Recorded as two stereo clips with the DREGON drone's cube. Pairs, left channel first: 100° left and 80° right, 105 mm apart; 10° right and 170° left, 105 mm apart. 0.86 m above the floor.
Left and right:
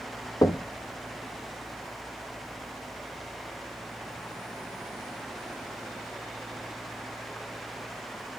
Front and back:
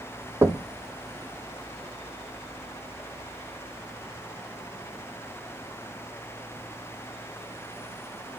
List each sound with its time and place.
0.4 s knocking: 125° left, 0.6 m